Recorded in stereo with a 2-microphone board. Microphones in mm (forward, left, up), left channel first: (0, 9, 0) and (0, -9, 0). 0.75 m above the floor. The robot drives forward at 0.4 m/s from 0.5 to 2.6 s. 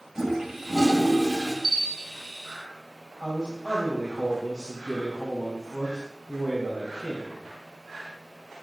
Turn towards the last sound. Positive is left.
turn(degrees=-45)  # may be behind; listen again after turning